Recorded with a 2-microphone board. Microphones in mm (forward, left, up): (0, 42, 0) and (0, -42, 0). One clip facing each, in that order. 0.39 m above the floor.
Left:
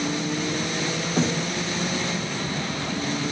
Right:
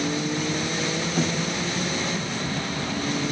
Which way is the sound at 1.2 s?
30° left (ahead or behind).